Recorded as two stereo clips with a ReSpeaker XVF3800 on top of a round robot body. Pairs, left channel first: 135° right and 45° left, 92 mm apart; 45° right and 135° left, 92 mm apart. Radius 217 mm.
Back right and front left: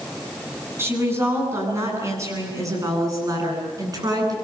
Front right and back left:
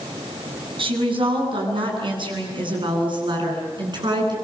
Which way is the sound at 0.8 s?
110° left.